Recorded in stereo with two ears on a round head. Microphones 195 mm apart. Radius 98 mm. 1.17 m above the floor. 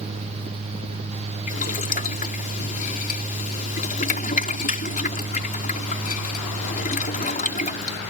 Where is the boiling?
40° left (ahead or behind).